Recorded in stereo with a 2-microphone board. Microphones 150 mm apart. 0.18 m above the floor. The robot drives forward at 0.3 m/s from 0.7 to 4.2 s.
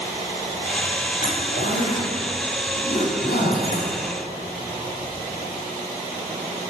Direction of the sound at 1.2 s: 80° left.